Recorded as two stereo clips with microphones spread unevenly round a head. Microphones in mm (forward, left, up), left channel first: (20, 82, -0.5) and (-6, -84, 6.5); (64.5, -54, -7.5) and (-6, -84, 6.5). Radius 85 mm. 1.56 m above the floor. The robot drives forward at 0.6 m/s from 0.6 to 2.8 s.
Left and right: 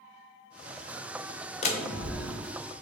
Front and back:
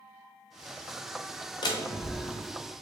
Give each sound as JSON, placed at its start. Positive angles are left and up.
{"t": 1.6, "sound": "a door slam", "azimuth_deg": 40, "distance_m": 0.7}